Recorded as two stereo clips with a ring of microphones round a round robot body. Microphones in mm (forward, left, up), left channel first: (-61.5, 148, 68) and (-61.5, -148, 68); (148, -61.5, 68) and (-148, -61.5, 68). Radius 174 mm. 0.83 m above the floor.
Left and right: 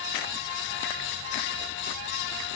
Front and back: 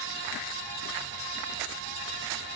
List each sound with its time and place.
Only background noise.